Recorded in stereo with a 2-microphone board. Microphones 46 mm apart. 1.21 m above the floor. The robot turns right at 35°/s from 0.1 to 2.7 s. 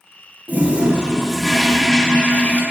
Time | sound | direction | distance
0.5 | a toilet flushing | 35° right | 1.3 m